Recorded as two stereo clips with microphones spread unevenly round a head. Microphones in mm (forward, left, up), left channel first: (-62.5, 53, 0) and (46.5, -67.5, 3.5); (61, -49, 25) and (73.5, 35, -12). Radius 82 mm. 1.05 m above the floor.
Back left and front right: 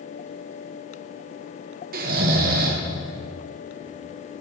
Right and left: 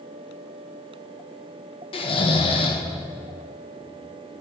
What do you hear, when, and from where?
1.9 s snoring: 75° right, 0.9 m